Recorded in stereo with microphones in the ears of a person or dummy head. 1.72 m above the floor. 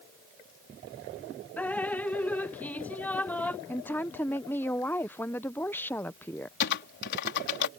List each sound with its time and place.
1.6 s dripping: 5° left (ahead or behind)
3.7 s a woman speaking: 10° left (ahead or behind)
6.6 s typing on a keyboard: 60° left (ahead or behind)